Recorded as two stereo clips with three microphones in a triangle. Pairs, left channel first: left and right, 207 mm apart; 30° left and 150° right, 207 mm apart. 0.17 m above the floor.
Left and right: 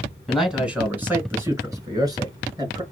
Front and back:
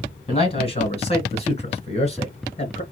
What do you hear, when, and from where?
0.3 s a man speaking: straight ahead, 1.6 m; by 2.8 s 25° right, 3 m